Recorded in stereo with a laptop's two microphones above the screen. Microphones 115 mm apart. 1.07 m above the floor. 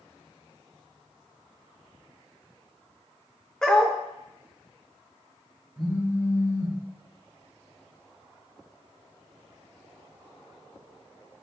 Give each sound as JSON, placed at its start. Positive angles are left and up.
{"t": 3.6, "sound": "a dog barking", "side_deg": 5, "distance_m": 0.7}
{"t": 5.8, "sound": "a phone buzzing", "side_deg": -10, "distance_m": 2.5}